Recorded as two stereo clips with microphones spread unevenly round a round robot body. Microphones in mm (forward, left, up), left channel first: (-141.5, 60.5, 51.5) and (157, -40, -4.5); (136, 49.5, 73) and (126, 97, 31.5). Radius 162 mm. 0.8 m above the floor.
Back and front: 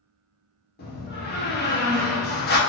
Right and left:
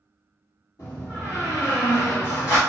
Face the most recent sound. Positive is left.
turn(degrees=-135)